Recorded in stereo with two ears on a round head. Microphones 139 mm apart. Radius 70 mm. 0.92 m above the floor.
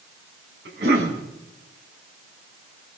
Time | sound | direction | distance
0.7 | a cough | 80° right | 7.5 m